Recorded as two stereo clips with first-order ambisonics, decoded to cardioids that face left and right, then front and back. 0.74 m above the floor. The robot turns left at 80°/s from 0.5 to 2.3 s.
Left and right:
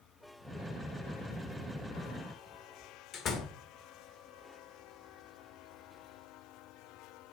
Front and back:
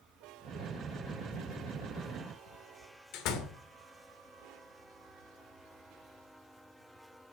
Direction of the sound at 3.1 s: 35° left.